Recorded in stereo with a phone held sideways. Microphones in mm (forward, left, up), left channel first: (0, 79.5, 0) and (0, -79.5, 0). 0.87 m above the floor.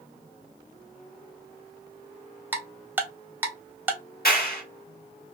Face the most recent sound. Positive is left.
turn(degrees=70)  # may be behind; listen again after turning